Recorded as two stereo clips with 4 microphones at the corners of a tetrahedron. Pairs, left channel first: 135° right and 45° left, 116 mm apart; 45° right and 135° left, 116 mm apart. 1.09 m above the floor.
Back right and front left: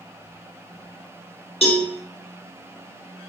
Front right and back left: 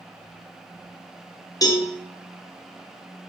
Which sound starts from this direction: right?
A cowbell, at 1.6 s.